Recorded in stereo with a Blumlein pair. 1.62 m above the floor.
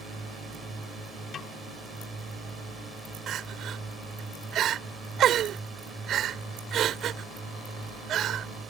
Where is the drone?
5° right.